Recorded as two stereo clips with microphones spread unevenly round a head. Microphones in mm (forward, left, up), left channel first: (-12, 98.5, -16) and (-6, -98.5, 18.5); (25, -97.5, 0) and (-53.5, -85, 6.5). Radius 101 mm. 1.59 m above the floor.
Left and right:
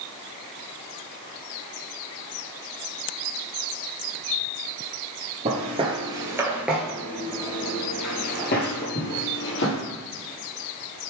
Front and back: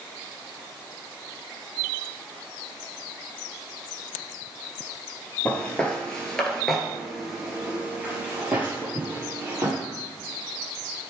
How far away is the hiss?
I don't hear a hiss.